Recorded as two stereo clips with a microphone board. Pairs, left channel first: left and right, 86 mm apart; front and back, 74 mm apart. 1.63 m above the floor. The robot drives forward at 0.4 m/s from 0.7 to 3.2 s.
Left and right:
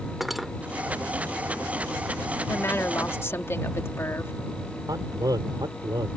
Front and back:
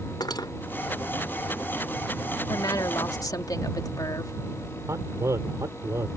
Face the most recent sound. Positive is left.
turn(degrees=-130)